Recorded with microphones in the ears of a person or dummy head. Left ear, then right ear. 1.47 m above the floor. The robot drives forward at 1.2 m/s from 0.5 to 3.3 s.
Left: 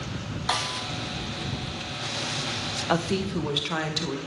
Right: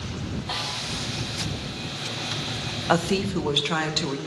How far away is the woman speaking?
About 0.8 m.